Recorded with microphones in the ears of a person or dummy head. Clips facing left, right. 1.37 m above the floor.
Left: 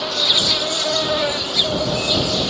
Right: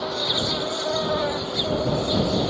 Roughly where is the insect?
Left.